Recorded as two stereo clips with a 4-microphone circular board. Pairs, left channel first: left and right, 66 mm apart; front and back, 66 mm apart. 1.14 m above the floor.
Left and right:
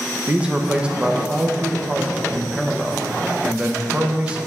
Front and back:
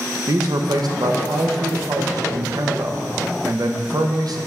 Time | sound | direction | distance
0.3 | a man speaking | 165° right | 0.7 m